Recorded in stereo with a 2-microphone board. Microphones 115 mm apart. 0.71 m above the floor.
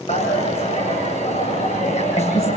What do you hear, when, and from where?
0.1 s a dropped coin: 85° left, 7.5 m